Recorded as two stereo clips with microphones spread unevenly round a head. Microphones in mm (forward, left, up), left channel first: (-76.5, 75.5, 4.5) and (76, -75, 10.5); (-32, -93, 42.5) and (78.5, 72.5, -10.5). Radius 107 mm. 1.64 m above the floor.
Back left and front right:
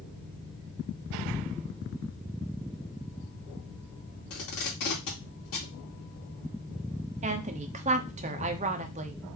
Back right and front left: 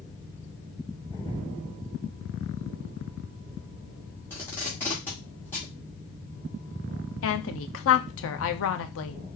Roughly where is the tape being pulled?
Behind.